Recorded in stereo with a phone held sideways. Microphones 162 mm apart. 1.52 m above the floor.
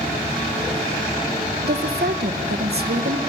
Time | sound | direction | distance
1.6 | a woman speaking | 80° right | 1.3 m